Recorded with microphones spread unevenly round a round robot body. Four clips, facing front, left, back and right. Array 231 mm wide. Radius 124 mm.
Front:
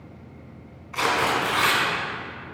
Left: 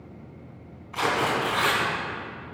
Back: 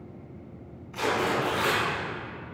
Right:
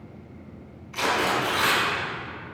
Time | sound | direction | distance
0.9 | tearing paper | 35° left | 3 m